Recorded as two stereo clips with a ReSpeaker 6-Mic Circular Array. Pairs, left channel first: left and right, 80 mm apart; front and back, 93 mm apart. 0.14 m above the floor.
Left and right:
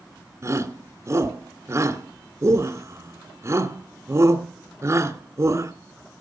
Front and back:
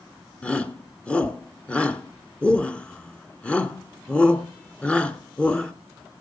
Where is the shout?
70° right, 1.3 m.